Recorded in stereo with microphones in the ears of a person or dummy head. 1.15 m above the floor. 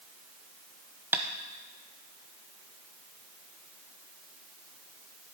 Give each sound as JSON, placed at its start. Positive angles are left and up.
{"t": 1.1, "sound": "tapping", "side_deg": -5, "distance_m": 0.6}